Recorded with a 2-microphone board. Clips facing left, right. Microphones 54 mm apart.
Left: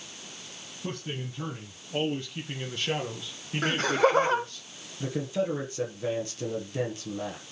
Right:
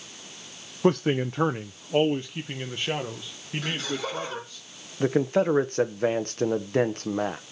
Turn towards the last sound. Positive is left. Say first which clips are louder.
# right 7 dB
turn(degrees=-50)  # may be behind; listen again after turning